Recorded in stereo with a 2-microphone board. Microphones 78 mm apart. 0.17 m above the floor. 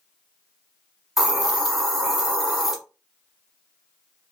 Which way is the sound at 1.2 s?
5° right (ahead or behind).